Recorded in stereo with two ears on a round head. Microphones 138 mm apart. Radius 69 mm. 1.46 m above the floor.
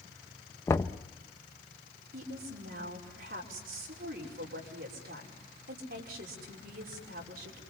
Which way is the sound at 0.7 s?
15° left (ahead or behind).